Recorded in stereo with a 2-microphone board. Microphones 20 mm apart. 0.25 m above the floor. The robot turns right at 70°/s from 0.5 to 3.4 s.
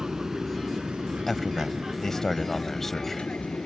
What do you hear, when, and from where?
0.0 s an aircraft: 35° right (ahead or behind); by 3.7 s 65° left (ahead or behind)
1.3 s a man speaking: 10° left (ahead or behind); by 3.3 s 5° left (ahead or behind)